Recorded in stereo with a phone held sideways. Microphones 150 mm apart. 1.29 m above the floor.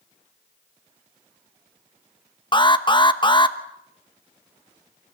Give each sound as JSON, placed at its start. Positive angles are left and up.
{"t": 2.5, "sound": "an alarm", "side_deg": 30, "distance_m": 1.1}